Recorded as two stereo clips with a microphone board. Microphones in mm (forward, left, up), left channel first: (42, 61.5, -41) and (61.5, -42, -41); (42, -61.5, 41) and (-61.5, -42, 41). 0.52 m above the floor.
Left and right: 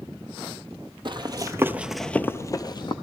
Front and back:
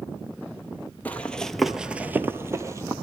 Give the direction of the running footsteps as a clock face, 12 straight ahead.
3 o'clock.